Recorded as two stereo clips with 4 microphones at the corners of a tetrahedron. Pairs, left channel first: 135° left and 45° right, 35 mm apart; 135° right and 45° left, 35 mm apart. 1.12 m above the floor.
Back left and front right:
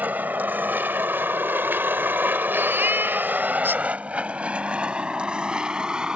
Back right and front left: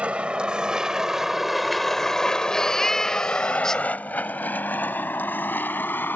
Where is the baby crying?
60° right.